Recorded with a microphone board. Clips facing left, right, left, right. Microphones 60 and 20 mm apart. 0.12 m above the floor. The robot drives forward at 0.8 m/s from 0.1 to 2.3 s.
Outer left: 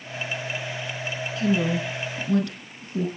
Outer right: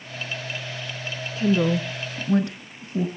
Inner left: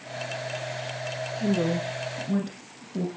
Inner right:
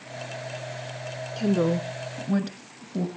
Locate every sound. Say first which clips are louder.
1.4 s a woman speaking: outer right 3 dB, inner right 3 dB; 30° right (ahead or behind), 1.2 m; by 3.1 s 25° right (ahead or behind), 1.4 m